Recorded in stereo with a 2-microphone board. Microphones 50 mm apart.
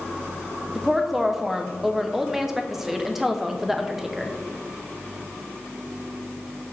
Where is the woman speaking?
10° right (ahead or behind), 0.8 m.